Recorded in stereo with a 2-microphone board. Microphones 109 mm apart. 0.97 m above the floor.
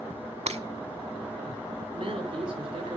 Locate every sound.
0.5 s breaking glass: 75° right (ahead or behind), 1.1 m
1.9 s a man speaking: 50° right (ahead or behind), 4 m